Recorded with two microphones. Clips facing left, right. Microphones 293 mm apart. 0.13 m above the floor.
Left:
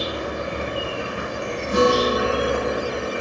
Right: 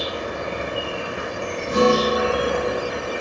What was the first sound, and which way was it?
An insect, 20° left (ahead or behind).